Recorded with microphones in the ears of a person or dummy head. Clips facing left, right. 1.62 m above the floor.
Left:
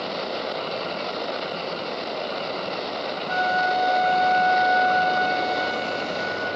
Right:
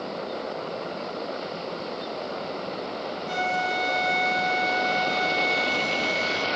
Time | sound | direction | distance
3.3 | a flute | 80° right | 0.6 m